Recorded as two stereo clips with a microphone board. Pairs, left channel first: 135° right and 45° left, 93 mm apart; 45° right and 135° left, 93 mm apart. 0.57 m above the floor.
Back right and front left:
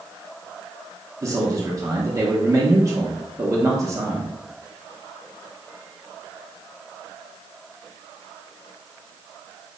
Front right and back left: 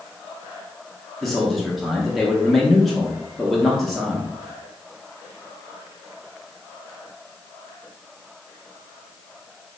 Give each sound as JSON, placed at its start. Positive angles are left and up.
{"t": 1.2, "sound": "a man speaking", "azimuth_deg": 40, "distance_m": 0.7}